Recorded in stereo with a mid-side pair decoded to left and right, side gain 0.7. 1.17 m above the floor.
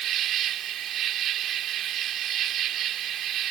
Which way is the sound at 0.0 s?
50° right.